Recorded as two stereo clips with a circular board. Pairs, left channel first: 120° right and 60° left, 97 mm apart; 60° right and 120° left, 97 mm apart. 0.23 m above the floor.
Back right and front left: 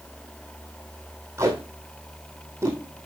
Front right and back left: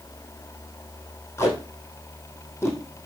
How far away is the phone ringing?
I don't hear a phone ringing.